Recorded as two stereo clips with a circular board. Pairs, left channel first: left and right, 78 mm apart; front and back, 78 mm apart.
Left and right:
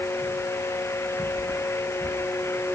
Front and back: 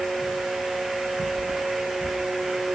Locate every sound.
1.4 s keys jangling: 170° left